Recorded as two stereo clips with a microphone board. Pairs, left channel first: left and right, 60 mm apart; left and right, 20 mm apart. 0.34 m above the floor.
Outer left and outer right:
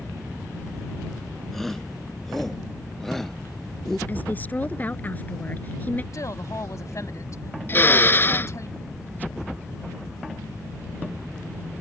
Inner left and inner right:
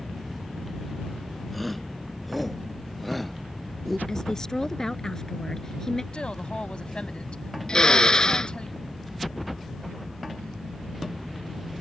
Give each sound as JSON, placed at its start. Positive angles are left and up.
{"t": 1.5, "sound": "a shout", "side_deg": 5}
{"t": 4.1, "sound": "a woman speaking", "side_deg": 30}
{"t": 6.1, "sound": "a woman speaking", "side_deg": 60}
{"t": 7.7, "sound": "a drill", "side_deg": 35}